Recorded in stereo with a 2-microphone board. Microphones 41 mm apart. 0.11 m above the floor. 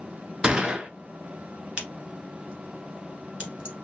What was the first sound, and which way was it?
A gunshot, 20° right (ahead or behind).